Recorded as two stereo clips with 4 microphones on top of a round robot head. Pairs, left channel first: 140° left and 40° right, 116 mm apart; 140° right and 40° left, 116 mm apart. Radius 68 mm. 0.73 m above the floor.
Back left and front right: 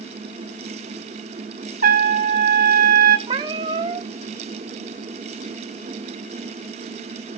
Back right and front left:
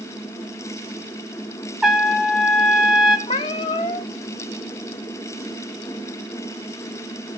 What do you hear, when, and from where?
1.8 s a trumpet: 45° right, 1.8 m
3.3 s a cat meowing: 90° right, 0.8 m